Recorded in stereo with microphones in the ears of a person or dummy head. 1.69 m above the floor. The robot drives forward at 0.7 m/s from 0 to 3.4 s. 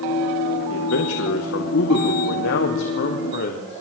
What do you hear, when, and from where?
0.7 s a man speaking: 75° left (ahead or behind), 3 m; by 3.8 s 60° left (ahead or behind), 3 m